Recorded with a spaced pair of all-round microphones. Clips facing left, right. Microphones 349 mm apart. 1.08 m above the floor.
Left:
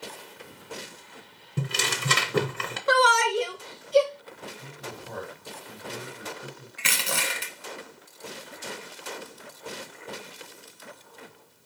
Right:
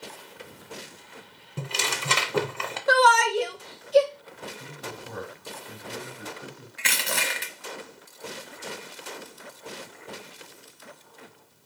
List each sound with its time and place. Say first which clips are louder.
1.6 s tearing paper: left 2 dB; 25° left (ahead or behind), 0.5 m
2.9 s a shout: right 1 dB; 10° left (ahead or behind), 0.7 m
4.6 s a man speaking: right 1 dB; 40° right (ahead or behind), 1.9 m
6.8 s crushing: even; 10° left (ahead or behind), 1.1 m